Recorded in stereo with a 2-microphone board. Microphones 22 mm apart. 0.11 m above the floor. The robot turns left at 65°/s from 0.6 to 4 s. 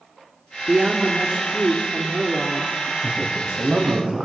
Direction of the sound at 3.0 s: 10° right.